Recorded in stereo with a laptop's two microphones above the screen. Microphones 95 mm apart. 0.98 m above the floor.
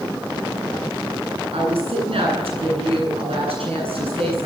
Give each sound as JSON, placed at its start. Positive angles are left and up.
{"t": 1.5, "sound": "a woman speaking", "side_deg": -85, "distance_m": 10.0}